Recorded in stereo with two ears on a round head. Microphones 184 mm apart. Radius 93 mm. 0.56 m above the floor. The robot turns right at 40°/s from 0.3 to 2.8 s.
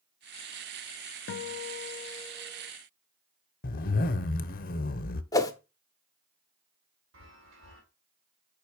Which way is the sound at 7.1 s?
65° right (ahead or behind).